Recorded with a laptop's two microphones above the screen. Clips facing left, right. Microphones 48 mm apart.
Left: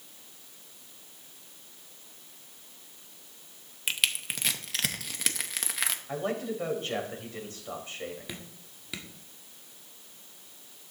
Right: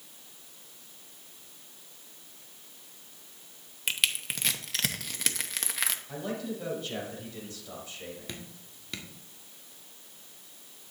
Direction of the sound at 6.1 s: 45° left (ahead or behind).